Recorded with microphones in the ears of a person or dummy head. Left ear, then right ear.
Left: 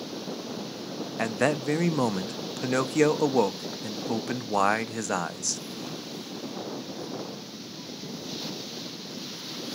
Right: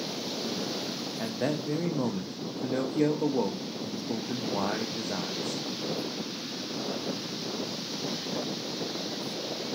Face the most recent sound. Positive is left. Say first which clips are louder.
# left 7 dB
turn(degrees=60)  # may be behind; listen again after turning